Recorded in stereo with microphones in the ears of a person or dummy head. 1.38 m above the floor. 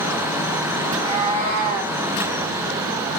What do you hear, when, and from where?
0.8 s a cat meowing: 30° right (ahead or behind), 3 m; by 2.0 s 50° right (ahead or behind), 3 m